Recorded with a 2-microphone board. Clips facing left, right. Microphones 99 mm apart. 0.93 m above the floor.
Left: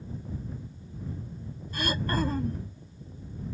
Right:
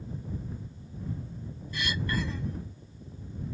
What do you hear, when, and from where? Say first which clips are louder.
1.7 s throat clearing: left 3 dB; 45° left (ahead or behind)